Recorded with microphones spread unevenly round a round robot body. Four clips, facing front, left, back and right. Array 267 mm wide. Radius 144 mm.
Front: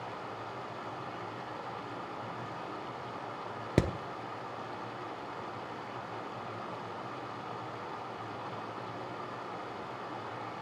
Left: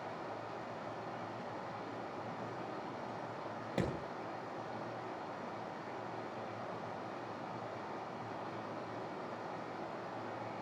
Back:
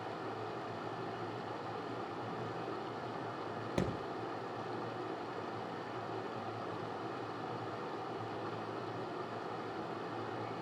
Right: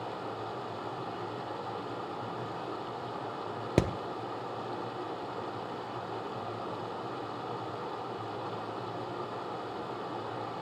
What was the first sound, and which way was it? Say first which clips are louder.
Running water: right 6 dB, even; 120° right.